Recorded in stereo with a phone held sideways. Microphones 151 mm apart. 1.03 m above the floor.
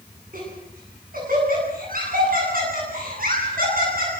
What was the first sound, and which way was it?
Laughter, 70° right (ahead or behind).